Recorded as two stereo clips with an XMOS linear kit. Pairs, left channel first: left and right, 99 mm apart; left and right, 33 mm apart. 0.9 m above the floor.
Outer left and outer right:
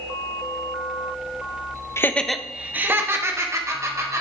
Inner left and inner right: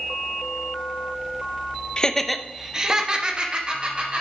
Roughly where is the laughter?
Left.